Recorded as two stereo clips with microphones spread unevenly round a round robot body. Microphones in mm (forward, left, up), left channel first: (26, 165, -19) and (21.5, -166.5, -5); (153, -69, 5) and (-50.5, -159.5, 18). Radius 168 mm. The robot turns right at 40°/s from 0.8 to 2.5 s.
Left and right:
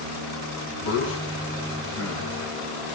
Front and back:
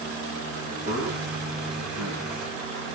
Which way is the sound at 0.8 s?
140° left.